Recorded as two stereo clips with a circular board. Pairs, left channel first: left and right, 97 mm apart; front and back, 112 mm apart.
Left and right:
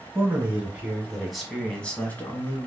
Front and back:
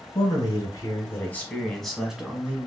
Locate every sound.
0.1 s a man speaking: 30° right, 1.4 m; by 2.7 s 120° left, 1.2 m